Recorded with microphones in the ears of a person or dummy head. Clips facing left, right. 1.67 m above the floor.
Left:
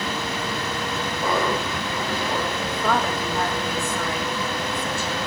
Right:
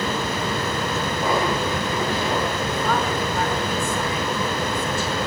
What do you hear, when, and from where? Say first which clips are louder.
1.2 s laughter: right 1 dB; 20° right (ahead or behind), 3.5 m; by 2.5 s 40° right (ahead or behind), 4.5 m
2.6 s a woman speaking: right 1 dB; 50° left (ahead or behind), 3.5 m